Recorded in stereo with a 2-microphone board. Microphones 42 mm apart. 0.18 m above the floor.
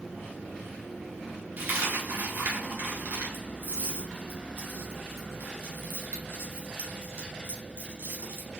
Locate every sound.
1.6 s a dropped coin: 65° right (ahead or behind), 1.4 m